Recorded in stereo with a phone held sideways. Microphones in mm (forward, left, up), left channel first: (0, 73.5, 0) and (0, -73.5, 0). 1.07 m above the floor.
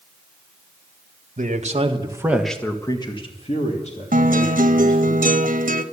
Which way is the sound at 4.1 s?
70° right (ahead or behind).